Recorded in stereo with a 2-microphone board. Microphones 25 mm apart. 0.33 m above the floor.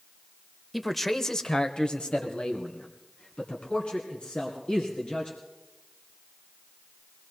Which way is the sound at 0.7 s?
Centre (ahead or behind).